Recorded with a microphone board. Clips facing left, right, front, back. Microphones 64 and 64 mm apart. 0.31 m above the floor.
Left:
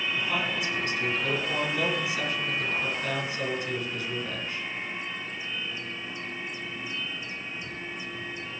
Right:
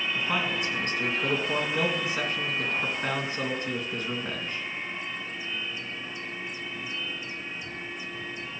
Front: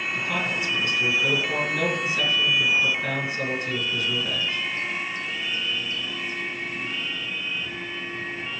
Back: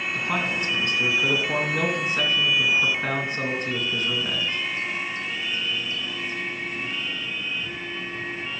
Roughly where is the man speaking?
Behind right.